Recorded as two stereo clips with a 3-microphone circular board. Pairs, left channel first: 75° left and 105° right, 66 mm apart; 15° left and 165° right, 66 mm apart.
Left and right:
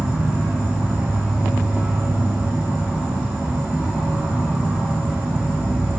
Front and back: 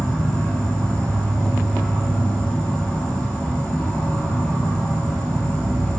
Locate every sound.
0.0 s an insect: 55° right, 3 m